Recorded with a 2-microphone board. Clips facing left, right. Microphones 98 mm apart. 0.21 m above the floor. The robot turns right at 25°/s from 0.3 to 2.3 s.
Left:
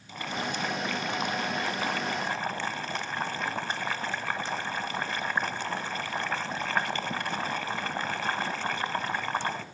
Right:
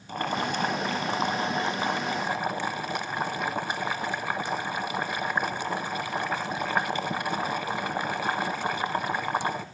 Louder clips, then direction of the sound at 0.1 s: Right 5 dB; 65° right.